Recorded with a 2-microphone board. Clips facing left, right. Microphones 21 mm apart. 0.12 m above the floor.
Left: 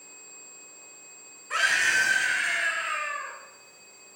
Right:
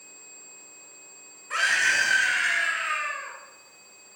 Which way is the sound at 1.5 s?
Centre (ahead or behind).